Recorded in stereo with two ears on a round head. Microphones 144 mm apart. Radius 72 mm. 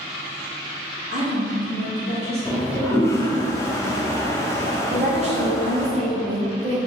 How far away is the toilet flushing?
About 0.5 m.